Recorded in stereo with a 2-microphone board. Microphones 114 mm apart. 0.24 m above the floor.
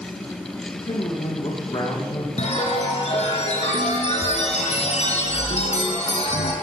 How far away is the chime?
About 8 m.